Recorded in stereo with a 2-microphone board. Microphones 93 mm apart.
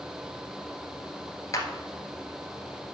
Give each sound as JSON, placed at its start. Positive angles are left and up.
{"t": 1.5, "sound": "a clap", "side_deg": 40, "distance_m": 1.5}